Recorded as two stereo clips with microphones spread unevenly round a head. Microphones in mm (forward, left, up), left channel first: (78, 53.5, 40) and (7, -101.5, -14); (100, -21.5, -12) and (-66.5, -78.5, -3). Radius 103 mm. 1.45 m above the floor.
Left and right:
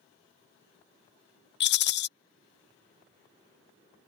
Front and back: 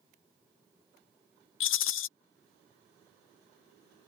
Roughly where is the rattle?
Ahead left.